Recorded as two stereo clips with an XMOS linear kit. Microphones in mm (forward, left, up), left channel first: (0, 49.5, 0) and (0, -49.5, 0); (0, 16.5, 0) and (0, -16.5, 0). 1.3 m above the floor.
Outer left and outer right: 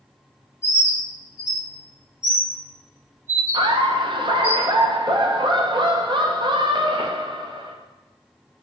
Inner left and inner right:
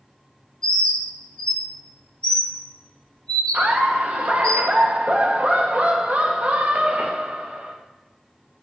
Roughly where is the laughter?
Right.